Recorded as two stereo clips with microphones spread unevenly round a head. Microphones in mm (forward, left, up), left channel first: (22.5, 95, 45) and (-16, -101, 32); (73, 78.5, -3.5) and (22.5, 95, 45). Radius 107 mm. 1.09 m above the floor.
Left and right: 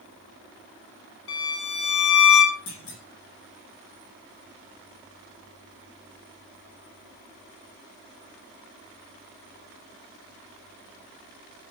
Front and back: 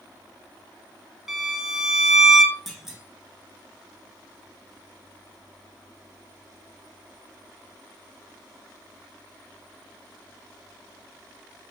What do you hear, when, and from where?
1.3 s a violin: 100° left, 2.5 m
2.7 s a clunk: 65° left, 2.5 m